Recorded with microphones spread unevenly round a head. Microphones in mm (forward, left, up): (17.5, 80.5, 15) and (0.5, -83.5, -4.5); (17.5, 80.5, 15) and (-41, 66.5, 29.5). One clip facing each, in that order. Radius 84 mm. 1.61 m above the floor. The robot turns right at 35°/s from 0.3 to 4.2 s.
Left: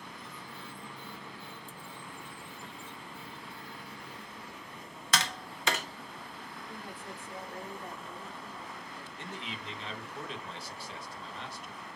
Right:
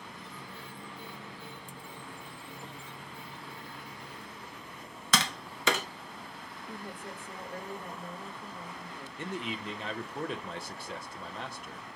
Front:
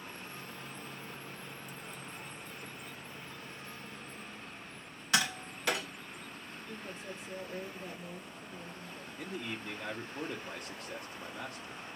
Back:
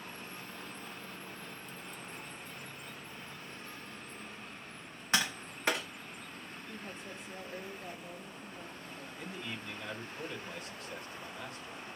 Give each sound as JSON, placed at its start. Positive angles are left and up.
{"t": 5.1, "sound": "tapping", "azimuth_deg": -95, "distance_m": 0.8}
{"t": 6.7, "sound": "a woman speaking", "azimuth_deg": -50, "distance_m": 2.0}
{"t": 9.2, "sound": "a man speaking", "azimuth_deg": -50, "distance_m": 0.9}